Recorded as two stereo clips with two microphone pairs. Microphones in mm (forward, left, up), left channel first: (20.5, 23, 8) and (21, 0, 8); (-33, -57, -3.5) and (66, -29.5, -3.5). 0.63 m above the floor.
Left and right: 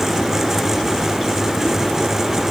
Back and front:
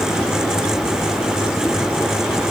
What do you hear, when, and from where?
Only background noise.